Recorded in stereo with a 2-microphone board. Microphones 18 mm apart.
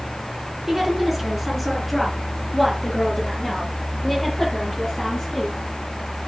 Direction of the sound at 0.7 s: 15° right (ahead or behind).